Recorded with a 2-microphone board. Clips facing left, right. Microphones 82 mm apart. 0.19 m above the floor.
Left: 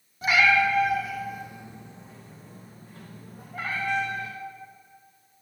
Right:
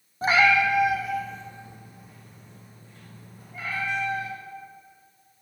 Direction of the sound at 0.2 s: 35° right (ahead or behind).